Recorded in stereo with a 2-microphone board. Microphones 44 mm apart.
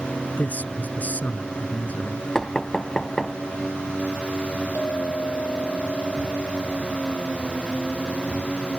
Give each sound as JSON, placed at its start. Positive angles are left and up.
{"t": 0.4, "sound": "a man speaking", "side_deg": 40}
{"t": 2.4, "sound": "knocking", "side_deg": 15}
{"t": 4.8, "sound": "a clink", "side_deg": 50}